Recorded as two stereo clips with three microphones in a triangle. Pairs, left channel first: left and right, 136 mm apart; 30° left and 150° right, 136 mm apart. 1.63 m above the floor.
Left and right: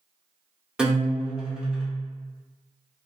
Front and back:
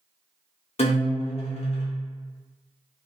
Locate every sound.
0.8 s a guitar: 5° right, 0.7 m